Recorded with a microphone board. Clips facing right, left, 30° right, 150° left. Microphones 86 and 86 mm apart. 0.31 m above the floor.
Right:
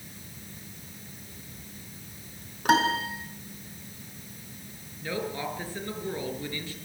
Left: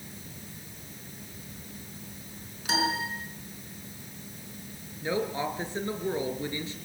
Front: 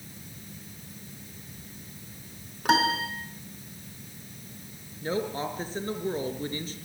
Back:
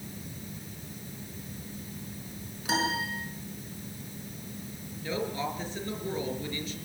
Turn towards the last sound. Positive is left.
turn(degrees=20)